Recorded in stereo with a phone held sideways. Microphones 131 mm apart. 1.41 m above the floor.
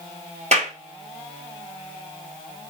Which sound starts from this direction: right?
A clap, at 0.5 s.